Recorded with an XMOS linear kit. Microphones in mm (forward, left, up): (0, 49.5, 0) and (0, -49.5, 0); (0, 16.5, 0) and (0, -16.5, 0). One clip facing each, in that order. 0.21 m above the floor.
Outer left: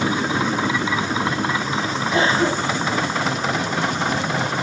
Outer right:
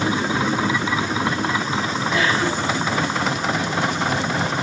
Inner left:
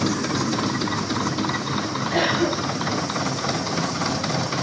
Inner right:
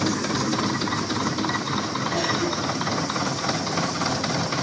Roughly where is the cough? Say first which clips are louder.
Outer left 3 dB, inner left 5 dB; left.